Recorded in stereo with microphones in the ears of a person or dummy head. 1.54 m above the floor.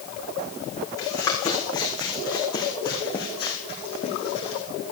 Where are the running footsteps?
20° left (ahead or behind), 5 m; by 4.6 s 40° left (ahead or behind), 3.5 m.